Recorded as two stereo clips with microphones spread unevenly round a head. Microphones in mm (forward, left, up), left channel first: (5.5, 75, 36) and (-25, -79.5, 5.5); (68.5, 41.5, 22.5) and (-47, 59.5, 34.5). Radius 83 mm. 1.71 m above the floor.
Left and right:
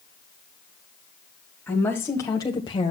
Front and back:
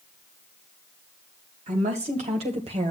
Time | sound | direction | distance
1.7 | a woman speaking | 160° left | 1.8 m